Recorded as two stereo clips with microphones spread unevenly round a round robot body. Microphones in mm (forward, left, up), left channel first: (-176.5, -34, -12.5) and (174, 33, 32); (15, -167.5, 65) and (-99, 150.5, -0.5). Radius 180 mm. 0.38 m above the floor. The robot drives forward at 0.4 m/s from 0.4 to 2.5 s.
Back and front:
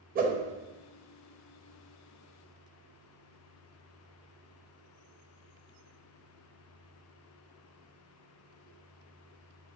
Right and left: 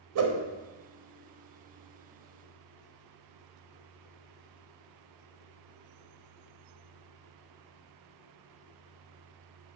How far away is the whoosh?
About 0.8 m.